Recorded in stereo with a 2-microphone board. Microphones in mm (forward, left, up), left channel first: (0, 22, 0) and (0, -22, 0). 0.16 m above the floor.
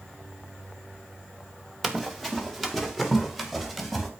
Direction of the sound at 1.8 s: 5° left (ahead or behind).